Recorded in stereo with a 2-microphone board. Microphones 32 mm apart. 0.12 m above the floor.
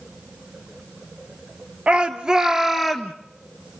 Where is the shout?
35° right (ahead or behind), 1.7 m; by 3.1 s 5° left (ahead or behind), 1.6 m.